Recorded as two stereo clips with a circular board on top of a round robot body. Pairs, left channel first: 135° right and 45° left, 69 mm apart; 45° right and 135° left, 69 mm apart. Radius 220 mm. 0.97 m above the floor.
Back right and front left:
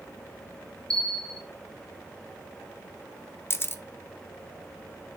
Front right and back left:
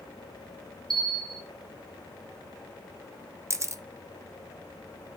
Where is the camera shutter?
175° left, 1.0 m.